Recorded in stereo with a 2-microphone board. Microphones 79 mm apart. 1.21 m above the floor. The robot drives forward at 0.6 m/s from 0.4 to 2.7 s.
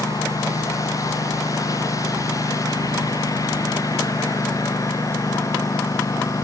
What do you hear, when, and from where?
0.0 s a lawn mower: 50° left (ahead or behind); by 6.5 s 45° left (ahead or behind)